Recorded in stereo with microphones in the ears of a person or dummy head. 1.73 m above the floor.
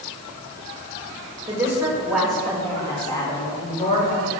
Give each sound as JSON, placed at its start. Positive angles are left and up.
{"t": 1.5, "sound": "a woman speaking", "side_deg": -15, "distance_m": 3.0}